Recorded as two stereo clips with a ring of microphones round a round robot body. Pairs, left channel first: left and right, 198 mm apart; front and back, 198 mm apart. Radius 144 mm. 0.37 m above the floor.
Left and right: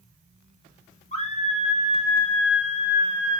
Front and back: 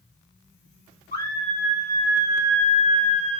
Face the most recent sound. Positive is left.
turn(degrees=160)